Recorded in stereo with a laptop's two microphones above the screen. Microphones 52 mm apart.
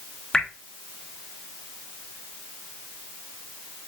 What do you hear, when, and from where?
0.3 s dripping: 15° left (ahead or behind), 0.6 m